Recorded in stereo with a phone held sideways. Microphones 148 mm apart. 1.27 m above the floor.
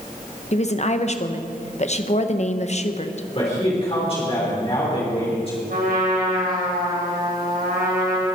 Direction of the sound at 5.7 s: 80° right.